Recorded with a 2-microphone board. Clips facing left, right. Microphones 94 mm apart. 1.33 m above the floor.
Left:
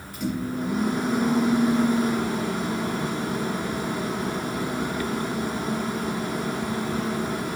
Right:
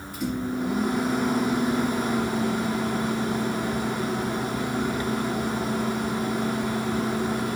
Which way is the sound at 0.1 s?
Centre (ahead or behind).